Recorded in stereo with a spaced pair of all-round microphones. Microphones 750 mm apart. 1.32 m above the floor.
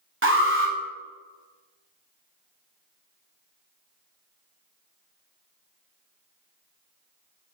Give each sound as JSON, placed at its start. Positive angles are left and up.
{"t": 0.2, "sound": "an alarm", "side_deg": -15, "distance_m": 0.9}